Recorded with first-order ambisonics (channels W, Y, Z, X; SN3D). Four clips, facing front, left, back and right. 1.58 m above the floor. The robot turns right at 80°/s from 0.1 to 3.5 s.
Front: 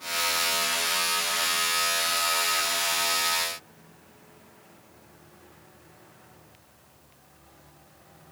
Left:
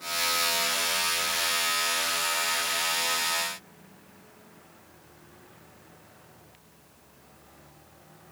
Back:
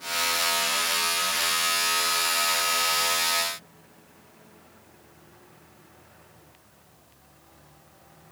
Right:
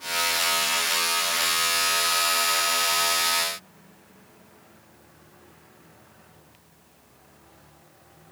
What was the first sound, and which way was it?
Only background noise.